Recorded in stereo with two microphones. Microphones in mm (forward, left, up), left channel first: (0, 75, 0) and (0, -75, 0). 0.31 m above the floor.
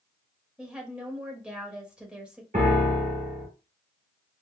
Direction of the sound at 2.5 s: 70° right (ahead or behind).